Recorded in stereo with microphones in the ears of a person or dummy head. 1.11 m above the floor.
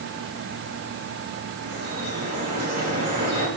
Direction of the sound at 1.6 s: 45° right (ahead or behind).